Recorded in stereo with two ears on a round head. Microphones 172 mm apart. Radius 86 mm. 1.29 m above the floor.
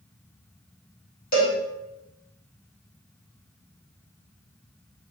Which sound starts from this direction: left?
A cowbell, at 1.3 s.